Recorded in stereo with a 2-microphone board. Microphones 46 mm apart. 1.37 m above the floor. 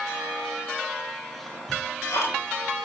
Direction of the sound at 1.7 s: 75° left (ahead or behind).